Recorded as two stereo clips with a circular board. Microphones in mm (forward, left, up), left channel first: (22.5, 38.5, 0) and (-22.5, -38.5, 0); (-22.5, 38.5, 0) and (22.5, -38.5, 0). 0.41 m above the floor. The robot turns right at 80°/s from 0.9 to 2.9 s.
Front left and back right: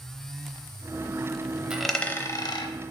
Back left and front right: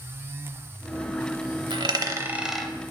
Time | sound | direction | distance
1.7 | a dropped coin | 40° right | 0.7 m